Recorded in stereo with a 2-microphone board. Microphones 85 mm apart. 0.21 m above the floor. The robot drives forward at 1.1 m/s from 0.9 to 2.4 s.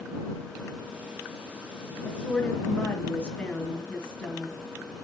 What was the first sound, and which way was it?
A woman speaking, 15° left (ahead or behind).